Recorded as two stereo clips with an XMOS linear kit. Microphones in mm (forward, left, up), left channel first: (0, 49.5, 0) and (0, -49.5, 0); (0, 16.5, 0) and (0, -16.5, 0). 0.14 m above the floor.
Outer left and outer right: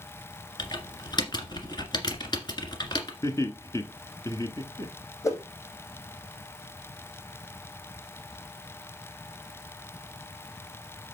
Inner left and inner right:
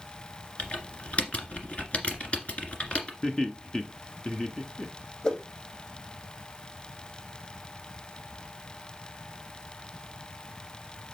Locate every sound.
0.6 s typing on a keyboard: 40° left (ahead or behind), 1.8 m
3.2 s laughter: 30° left (ahead or behind), 1.2 m
5.2 s a whoosh: 30° left (ahead or behind), 3.5 m